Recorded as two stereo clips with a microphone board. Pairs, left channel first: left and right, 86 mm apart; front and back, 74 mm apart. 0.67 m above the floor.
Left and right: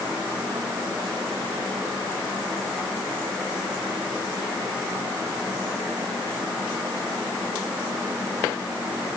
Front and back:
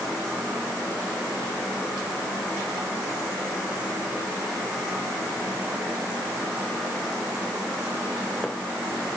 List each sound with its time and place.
Only background noise.